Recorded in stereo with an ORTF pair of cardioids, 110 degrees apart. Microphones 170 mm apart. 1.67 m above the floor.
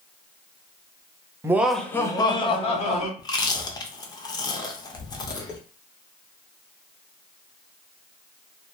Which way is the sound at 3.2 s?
25° left.